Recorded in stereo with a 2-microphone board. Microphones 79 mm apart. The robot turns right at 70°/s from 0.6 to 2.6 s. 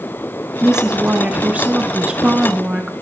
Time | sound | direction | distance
0.6 | a woman speaking | 5° right (ahead or behind) | 1.0 m